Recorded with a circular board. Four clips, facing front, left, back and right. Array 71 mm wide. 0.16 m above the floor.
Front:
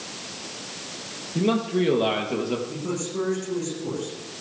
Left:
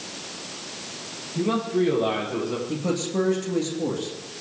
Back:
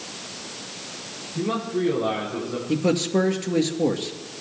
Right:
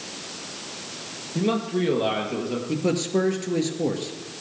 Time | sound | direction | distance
1.4 | a man speaking | 35° right | 4.5 m
2.7 | a man speaking | 155° right | 2.5 m